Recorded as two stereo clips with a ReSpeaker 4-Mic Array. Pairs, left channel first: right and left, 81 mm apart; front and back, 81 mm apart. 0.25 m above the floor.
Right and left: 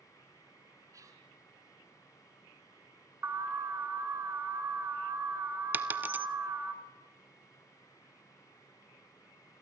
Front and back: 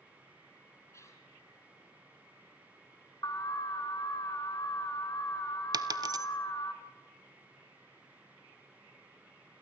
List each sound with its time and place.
0.9 s whispering: 50° left, 3.5 m
3.2 s an alarm: 35° left, 1.9 m
5.7 s a dropped coin: 155° left, 0.8 m